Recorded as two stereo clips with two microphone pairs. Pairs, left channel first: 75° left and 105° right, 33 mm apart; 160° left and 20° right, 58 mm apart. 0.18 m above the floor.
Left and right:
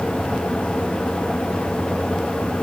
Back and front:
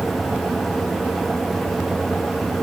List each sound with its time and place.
Only background noise.